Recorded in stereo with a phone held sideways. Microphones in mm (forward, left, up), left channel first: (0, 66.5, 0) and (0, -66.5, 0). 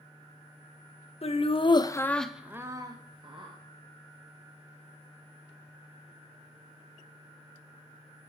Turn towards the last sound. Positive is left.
turn(degrees=-40)  # may be behind; listen again after turning